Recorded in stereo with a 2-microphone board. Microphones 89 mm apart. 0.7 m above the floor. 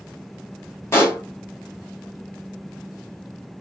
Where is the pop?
30° left (ahead or behind), 1.1 m.